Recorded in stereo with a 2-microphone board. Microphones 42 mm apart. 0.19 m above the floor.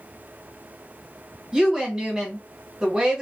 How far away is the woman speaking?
About 1.3 m.